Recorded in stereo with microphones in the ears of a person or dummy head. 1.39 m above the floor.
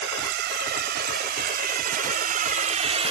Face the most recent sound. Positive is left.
turn(degrees=-35)  # may be behind; listen again after turning